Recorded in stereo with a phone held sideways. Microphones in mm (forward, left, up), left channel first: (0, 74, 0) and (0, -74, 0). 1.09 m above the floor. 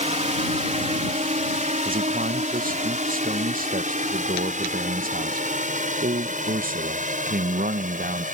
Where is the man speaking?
75° right (ahead or behind).